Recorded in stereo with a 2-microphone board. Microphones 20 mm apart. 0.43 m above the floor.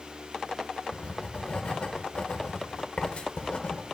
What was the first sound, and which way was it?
Writing, 50° left (ahead or behind).